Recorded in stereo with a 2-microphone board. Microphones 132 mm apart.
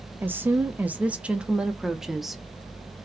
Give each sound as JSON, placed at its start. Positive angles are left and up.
{"t": 0.2, "sound": "a woman speaking", "side_deg": -15, "distance_m": 0.8}